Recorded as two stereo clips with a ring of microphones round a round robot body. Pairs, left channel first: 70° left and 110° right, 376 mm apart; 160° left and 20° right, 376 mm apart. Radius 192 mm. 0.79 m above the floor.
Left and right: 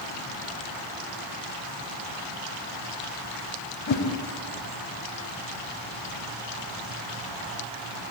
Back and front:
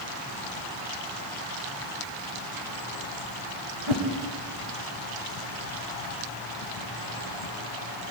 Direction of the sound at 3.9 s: 5° left.